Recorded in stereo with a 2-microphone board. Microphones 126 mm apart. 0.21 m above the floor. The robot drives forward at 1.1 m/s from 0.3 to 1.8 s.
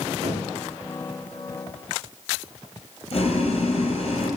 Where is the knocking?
55° right (ahead or behind), 3 m.